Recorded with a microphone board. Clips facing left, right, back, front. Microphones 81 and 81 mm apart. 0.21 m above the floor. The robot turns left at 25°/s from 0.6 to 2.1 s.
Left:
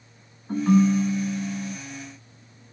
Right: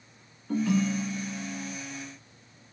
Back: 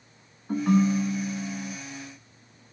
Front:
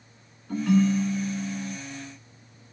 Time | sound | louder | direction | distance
0.5 | a ringtone | left 7 dB, even | 130° left | 1.1 m